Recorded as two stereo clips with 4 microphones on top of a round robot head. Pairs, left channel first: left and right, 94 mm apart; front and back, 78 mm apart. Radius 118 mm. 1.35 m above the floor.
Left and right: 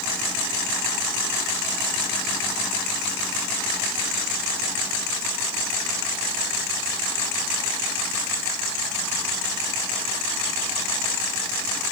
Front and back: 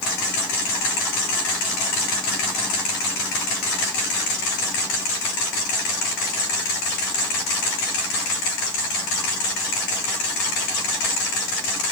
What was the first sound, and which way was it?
Only background noise.